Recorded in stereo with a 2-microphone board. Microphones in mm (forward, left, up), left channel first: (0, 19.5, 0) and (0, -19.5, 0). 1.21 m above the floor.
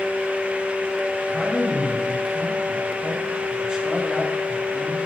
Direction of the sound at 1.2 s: 20° right (ahead or behind).